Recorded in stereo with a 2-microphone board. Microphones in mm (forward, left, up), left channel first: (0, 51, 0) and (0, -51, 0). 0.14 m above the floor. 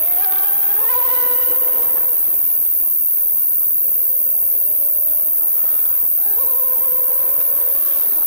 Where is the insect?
45° left (ahead or behind), 1.1 m.